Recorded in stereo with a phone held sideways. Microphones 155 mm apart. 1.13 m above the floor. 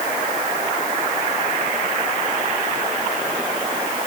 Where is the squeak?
No squeak in this recording.